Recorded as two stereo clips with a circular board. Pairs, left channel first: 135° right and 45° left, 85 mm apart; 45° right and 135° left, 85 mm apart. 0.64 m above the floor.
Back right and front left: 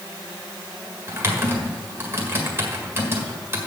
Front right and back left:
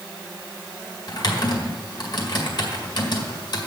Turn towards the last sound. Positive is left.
turn(degrees=-15)